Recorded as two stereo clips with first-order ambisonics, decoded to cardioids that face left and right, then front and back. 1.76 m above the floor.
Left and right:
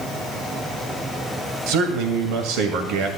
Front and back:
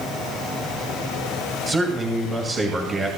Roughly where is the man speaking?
Right.